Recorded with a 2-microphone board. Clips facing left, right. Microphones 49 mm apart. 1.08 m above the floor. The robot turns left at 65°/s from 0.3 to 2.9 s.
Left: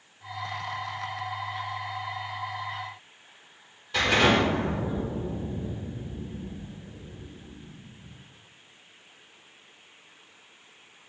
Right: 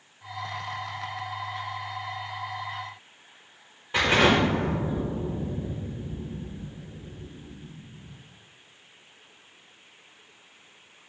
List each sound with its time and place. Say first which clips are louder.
3.9 s an explosion: right 1 dB; 25° right (ahead or behind), 4.5 m